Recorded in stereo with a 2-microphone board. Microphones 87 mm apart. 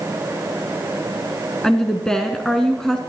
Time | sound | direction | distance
1.6 | a woman speaking | 5° left (ahead or behind) | 1.3 m